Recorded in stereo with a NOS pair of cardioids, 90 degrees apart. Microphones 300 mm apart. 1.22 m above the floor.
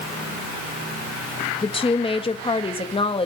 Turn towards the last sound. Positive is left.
turn(degrees=20)